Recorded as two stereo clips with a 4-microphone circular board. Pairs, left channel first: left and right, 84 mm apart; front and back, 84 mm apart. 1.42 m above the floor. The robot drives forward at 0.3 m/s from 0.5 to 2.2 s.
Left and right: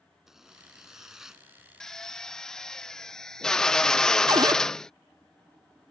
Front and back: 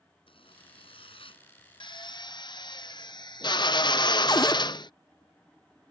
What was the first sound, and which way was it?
A zipper, 5° right.